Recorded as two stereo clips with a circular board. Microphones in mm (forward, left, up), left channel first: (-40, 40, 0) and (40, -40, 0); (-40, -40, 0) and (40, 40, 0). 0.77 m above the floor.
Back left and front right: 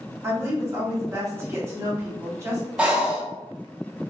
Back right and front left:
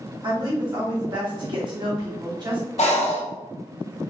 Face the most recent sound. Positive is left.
turn(degrees=-125)